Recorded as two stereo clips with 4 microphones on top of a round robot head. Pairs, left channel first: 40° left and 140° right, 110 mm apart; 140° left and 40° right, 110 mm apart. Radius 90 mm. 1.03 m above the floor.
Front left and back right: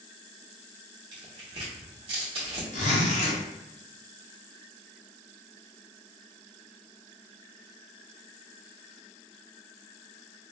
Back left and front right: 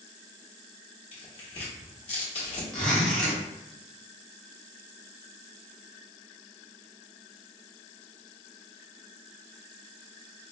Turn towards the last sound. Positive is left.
turn(degrees=55)